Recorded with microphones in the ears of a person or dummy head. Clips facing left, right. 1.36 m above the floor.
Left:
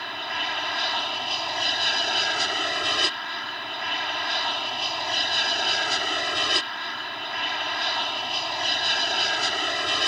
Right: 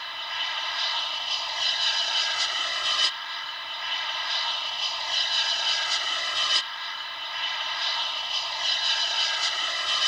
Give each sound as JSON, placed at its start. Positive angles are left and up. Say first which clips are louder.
{"t": 0.0, "sound": "an aircraft", "louder": "left 7 dB", "side_deg": 45}